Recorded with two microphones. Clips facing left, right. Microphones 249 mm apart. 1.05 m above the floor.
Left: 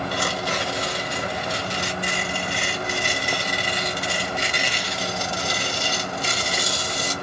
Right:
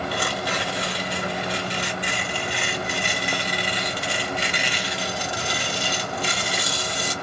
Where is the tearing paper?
45° left (ahead or behind), 1.5 m.